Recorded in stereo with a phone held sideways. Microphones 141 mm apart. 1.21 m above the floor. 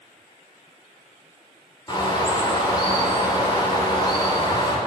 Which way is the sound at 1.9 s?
30° left (ahead or behind).